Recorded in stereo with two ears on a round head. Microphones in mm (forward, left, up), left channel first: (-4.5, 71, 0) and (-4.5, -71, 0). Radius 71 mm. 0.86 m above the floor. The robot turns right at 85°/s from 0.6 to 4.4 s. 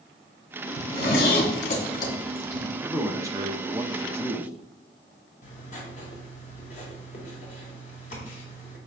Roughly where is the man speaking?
Centre.